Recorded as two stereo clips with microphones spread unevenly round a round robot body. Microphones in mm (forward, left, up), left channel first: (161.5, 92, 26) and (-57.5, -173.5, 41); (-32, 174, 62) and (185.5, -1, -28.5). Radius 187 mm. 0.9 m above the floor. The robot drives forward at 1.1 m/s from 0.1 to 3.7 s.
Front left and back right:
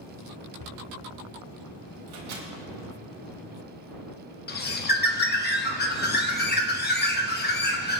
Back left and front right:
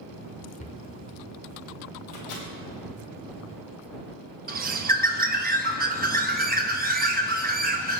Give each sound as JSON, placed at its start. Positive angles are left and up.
{"t": 0.6, "sound": "a cupboard door", "azimuth_deg": 80, "distance_m": 1.2}
{"t": 2.1, "sound": "a microwave", "azimuth_deg": 175, "distance_m": 2.0}
{"t": 4.5, "sound": "a bird", "azimuth_deg": -5, "distance_m": 1.1}